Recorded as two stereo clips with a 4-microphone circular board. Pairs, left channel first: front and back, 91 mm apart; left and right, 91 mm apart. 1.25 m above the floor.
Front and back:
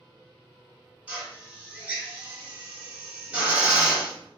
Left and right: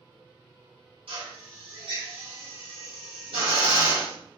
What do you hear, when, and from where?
1.1 s a drill: 110° right, 1.2 m